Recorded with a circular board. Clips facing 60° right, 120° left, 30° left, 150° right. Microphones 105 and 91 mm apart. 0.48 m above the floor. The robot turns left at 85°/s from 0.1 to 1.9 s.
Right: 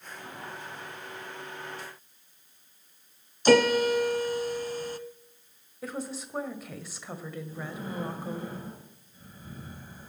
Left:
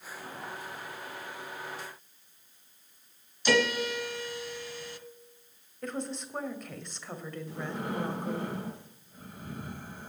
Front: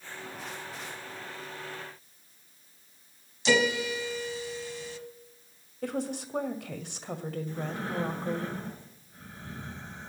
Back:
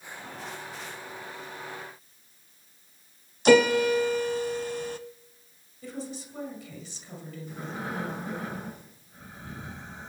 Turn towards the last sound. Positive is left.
turn(degrees=130)